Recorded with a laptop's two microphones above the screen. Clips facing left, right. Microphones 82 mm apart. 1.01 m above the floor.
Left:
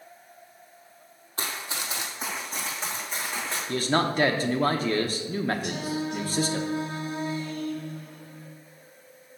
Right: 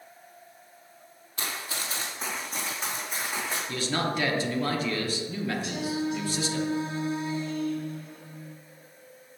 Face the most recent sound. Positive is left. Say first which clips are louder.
# even
turn(degrees=55)  # may be behind; listen again after turning